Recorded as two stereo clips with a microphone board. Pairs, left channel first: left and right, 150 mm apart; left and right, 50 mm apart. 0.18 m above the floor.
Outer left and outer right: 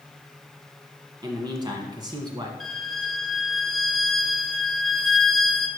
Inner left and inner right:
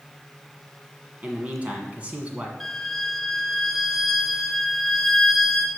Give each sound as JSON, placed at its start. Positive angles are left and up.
{"t": 1.2, "sound": "a man speaking", "side_deg": -30, "distance_m": 1.4}
{"t": 2.6, "sound": "a violin", "side_deg": 0, "distance_m": 0.8}